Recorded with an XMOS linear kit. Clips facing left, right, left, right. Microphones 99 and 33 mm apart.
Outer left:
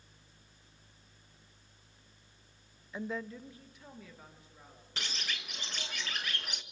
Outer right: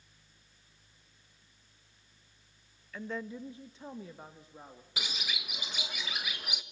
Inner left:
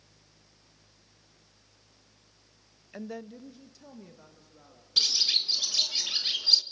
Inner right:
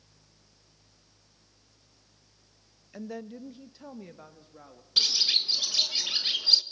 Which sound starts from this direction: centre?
A bird, at 5.0 s.